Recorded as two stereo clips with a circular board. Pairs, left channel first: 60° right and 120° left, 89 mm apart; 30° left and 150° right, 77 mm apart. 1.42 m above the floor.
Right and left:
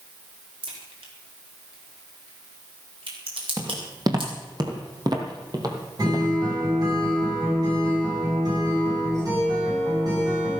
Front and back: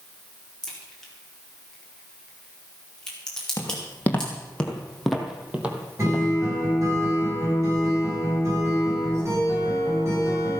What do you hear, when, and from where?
0.6 s a crack: 115° left, 4.5 m
3.6 s footsteps: 85° left, 3 m; by 6.7 s 165° left, 3 m
6.0 s a guitar: 160° left, 7.5 m